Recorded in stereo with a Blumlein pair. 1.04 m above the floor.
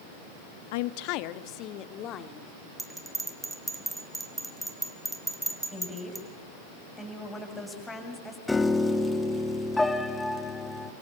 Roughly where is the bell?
Ahead.